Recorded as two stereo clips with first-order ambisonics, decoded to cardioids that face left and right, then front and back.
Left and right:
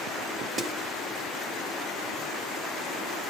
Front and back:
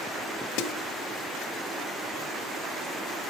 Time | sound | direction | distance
0.6 | a snare drum | 15° right | 0.8 m